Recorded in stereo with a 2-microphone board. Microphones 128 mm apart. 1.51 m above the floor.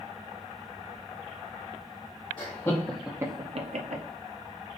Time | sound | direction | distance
2.4 | laughter | 35° left (ahead or behind) | 0.8 m